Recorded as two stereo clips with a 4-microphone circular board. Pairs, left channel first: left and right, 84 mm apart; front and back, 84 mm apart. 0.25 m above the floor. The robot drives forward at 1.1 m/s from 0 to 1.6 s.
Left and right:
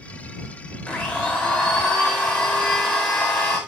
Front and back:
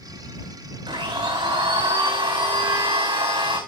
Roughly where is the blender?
Behind.